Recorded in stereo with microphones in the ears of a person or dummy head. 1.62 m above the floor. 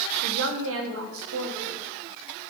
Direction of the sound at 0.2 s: 80° right.